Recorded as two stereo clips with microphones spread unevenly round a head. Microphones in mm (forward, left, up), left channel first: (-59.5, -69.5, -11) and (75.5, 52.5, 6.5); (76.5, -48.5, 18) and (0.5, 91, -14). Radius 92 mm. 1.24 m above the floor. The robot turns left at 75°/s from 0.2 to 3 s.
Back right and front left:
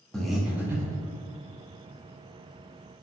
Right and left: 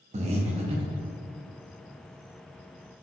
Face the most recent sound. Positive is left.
turn(degrees=-85)